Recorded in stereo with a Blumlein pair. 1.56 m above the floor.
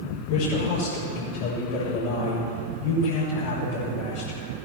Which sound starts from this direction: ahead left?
A man speaking, at 0.3 s.